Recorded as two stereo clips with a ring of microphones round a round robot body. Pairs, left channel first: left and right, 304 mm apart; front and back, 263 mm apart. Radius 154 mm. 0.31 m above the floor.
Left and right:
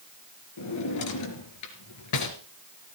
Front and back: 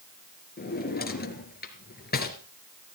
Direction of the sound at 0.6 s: 55° left.